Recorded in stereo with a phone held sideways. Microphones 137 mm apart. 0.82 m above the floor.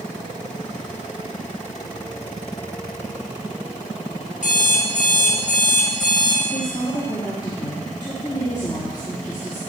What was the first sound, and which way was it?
An alarm clock, 70° left (ahead or behind).